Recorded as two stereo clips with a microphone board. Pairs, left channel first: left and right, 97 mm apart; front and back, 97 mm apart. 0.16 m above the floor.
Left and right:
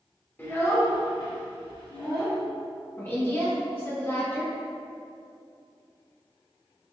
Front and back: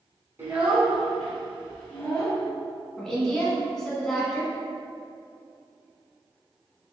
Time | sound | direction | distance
0.4 | a child speaking | 140° left | 1.2 m
3.0 | a woman speaking | 75° left | 1.2 m